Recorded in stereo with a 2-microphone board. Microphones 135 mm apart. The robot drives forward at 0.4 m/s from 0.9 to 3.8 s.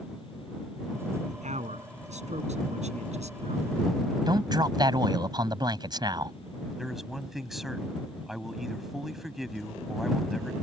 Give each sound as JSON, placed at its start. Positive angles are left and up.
{"t": 1.3, "sound": "a man speaking", "side_deg": -60}
{"t": 4.3, "sound": "a man speaking", "side_deg": -30}
{"t": 6.8, "sound": "a man speaking", "side_deg": 0}